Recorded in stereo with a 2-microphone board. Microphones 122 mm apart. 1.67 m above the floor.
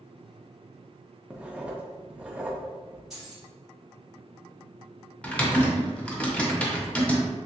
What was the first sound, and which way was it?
Writing, 10° right (ahead or behind).